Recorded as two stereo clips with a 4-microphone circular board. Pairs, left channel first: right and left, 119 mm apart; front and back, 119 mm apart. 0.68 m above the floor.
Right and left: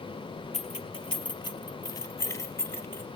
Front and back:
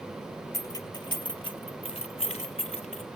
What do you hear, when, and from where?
0.5 s keys jangling: 65° right, 1.5 m; by 3.0 s 20° right, 2.5 m